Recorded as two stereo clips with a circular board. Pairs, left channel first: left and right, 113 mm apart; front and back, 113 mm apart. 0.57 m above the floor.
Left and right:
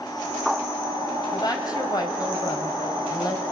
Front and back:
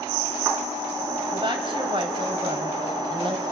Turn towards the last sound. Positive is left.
turn(degrees=140)